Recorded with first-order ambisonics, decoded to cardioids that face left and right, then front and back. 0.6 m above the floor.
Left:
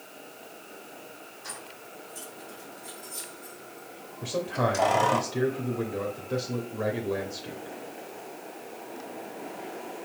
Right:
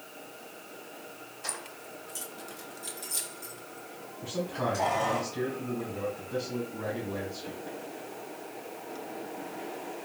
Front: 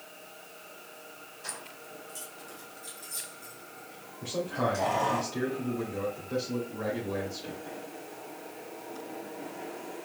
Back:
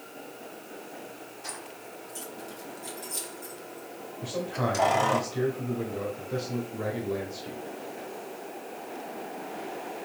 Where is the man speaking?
85° left, 1.1 m.